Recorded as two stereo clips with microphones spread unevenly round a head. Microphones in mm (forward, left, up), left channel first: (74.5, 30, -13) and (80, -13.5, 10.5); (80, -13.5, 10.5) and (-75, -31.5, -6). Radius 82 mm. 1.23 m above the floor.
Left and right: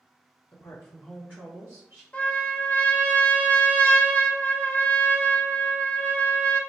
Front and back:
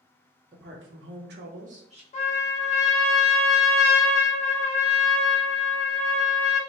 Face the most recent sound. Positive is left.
turn(degrees=20)